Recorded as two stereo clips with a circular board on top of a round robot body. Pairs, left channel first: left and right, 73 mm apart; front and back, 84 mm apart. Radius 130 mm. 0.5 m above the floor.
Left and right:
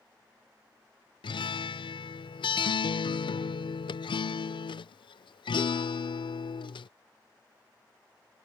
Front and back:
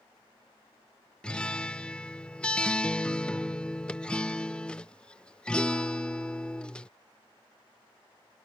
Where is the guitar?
80° left.